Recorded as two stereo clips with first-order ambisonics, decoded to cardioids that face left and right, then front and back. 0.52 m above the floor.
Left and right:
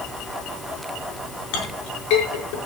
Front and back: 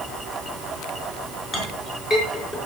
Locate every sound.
1.5 s a clink: 75° left, 5 m